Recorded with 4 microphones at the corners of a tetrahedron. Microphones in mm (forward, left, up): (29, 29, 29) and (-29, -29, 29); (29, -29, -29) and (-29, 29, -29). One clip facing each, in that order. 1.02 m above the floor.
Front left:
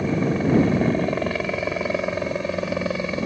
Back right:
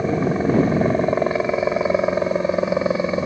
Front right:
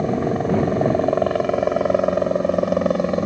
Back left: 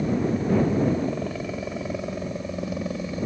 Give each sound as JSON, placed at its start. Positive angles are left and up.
{"t": 0.0, "sound": "a helicopter", "azimuth_deg": -70}